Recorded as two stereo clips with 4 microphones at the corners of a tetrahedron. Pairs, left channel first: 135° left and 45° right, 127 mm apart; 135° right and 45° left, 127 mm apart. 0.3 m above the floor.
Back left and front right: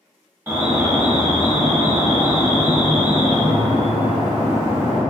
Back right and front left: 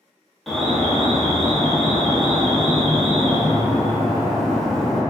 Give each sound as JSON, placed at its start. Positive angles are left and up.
{"t": 0.5, "sound": "an alarm", "azimuth_deg": -50, "distance_m": 0.8}